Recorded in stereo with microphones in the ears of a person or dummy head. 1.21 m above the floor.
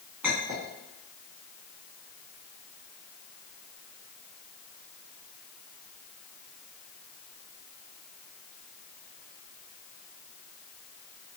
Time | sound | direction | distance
0.2 | a clink | 10° right (ahead or behind) | 1.6 m